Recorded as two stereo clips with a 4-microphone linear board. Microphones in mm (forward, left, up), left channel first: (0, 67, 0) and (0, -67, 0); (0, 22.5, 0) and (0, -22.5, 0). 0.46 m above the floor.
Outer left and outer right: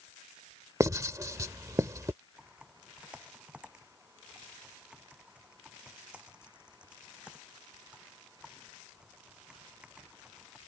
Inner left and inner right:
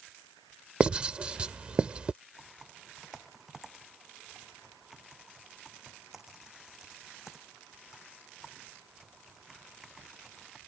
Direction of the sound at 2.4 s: 10° right (ahead or behind).